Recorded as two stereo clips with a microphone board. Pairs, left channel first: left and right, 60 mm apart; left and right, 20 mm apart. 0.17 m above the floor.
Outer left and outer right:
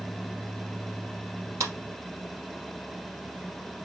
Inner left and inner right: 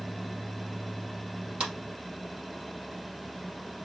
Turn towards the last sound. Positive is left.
turn(degrees=-60)  # may be behind; listen again after turning